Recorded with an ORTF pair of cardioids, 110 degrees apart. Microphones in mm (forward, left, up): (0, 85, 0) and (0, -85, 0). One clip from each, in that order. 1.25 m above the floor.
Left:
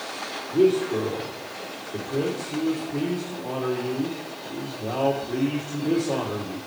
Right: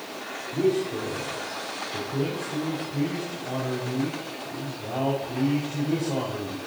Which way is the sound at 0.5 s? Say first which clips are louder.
Left 5 dB; 70° left.